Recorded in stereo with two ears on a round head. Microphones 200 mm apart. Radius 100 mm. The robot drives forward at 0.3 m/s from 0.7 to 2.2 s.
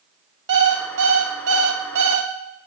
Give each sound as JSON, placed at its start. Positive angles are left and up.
{"t": 0.5, "sound": "an alarm clock", "side_deg": -50, "distance_m": 0.7}